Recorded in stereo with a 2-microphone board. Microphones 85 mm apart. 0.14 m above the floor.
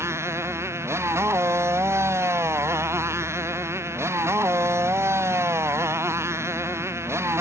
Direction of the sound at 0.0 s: 35° right (ahead or behind).